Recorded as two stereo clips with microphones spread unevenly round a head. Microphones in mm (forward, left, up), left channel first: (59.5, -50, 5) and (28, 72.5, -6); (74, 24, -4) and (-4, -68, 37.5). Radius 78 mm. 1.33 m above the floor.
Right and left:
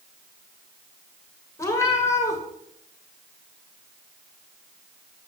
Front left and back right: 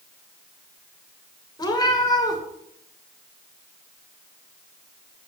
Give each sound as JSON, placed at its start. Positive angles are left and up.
{"t": 1.6, "sound": "a cat meowing", "azimuth_deg": -15, "distance_m": 2.0}